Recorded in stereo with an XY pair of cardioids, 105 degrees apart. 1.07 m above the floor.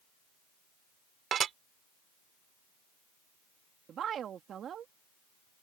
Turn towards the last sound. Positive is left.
turn(degrees=-60)